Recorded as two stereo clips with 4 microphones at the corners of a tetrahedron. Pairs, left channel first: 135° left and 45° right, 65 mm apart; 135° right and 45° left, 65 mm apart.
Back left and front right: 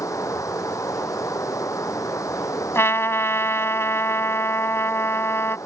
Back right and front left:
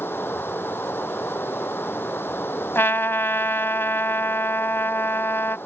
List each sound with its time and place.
0.0 s running water: 170° left
2.8 s a trumpet: 175° left